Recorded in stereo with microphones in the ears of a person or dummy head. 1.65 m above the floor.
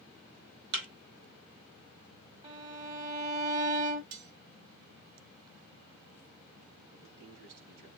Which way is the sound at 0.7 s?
65° right (ahead or behind).